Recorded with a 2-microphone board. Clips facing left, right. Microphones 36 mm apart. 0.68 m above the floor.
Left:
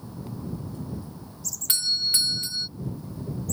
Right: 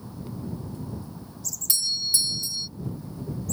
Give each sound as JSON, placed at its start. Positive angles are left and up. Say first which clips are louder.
{"t": 1.7, "sound": "a doorbell", "louder": "left 3 dB", "side_deg": 40}